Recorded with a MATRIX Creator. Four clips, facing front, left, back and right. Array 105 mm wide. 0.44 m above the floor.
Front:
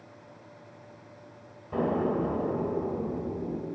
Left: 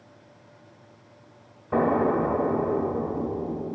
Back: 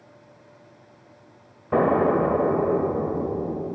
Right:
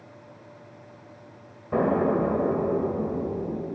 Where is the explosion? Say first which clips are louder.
Left 1 dB, back 8 dB; 170° left, 1.6 m.